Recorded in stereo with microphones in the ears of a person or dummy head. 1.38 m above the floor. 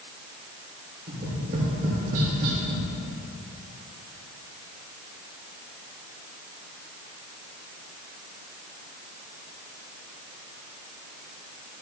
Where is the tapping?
40° right (ahead or behind), 2 m.